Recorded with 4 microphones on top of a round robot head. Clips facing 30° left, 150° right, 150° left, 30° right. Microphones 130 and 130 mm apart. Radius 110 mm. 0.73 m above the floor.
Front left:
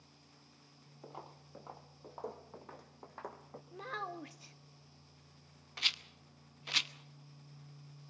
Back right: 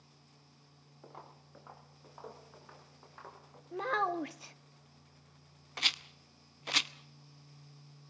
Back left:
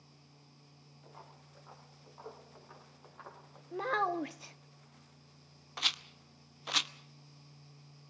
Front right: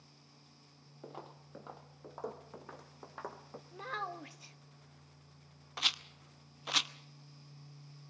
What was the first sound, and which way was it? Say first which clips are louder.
Footsteps: front left 2 dB, front right 7 dB; 45° right.